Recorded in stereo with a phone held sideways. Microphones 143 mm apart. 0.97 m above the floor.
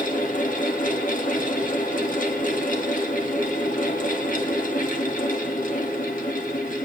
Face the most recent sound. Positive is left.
turn(degrees=75)  # may be behind; listen again after turning